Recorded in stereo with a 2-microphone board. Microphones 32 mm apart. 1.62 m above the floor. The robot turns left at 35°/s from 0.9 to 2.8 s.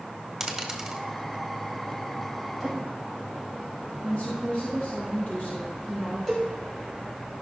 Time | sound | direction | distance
0.4 | a dropped coin | 10° right (ahead or behind) | 1.3 m
2.6 | a drawer | 5° left (ahead or behind) | 5 m
4.0 | a woman speaking | 50° left (ahead or behind) | 2.5 m
6.3 | a cowbell | 15° left (ahead or behind) | 3.5 m